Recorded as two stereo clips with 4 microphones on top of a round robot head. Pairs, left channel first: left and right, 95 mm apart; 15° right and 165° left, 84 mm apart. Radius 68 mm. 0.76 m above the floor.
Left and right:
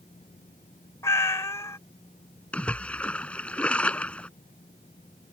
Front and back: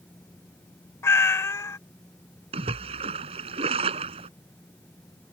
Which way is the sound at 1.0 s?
30° left.